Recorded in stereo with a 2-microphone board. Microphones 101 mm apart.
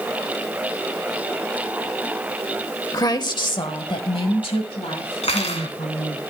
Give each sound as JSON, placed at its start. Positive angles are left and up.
{"t": 2.9, "sound": "a woman speaking", "side_deg": 35, "distance_m": 1.2}
{"t": 5.2, "sound": "cutlery clinking", "side_deg": 75, "distance_m": 2.0}